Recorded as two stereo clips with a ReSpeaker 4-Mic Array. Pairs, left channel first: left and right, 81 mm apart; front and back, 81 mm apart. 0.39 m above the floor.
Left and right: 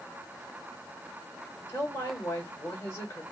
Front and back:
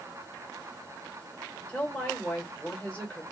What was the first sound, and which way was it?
A woman speaking, 65° left.